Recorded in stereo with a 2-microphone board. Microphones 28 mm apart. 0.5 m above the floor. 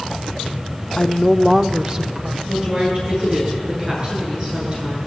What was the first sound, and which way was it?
A woman speaking, 30° left (ahead or behind).